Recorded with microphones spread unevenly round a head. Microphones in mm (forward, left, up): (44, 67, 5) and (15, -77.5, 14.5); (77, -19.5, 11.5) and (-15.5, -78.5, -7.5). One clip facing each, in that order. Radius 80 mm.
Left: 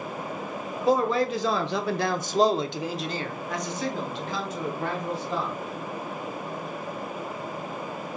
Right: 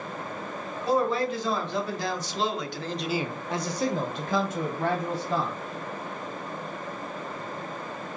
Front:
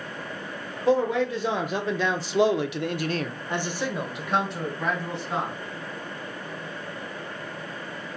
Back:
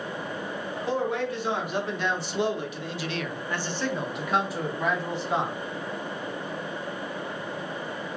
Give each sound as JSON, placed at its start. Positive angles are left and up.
{"t": 0.9, "sound": "a man speaking", "azimuth_deg": 65, "distance_m": 1.5}